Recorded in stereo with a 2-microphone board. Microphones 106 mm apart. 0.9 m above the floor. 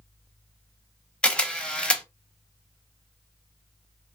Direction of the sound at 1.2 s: 10° left (ahead or behind).